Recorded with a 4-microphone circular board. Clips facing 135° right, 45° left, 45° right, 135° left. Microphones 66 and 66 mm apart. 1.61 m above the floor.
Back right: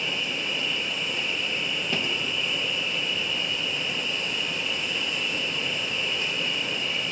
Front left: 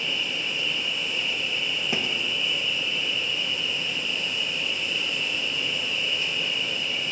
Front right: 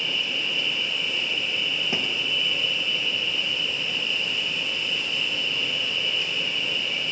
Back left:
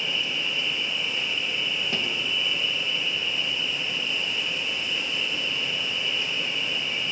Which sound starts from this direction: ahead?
A thud, at 1.9 s.